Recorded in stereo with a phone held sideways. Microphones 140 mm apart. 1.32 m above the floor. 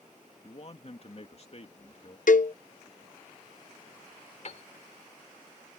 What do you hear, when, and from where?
0.4 s a man speaking: 45° left (ahead or behind)
2.3 s a cowbell: 70° left (ahead or behind)
4.5 s a piano: 50° left (ahead or behind)